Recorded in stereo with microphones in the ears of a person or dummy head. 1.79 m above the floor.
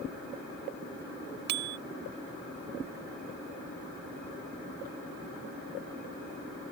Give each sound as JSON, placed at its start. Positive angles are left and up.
{"t": 1.5, "sound": "a bicycle bell", "side_deg": -70}